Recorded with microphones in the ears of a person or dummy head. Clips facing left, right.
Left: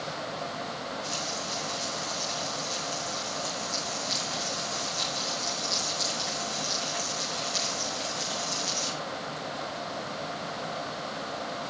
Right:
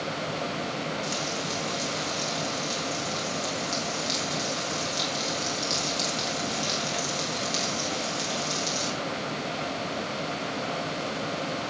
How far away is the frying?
About 4.5 m.